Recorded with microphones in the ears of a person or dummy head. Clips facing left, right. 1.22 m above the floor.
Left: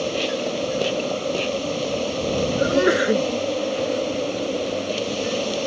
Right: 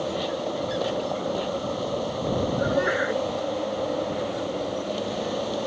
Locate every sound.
0.0 s an insect: 35° left (ahead or behind)
2.6 s a sneeze: 50° left (ahead or behind)